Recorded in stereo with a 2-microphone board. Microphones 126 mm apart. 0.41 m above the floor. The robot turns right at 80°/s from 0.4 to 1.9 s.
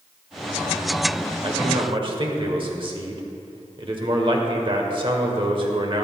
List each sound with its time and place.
1.4 s a man speaking: 115° right, 1.3 m; by 6.0 s 75° right, 1.3 m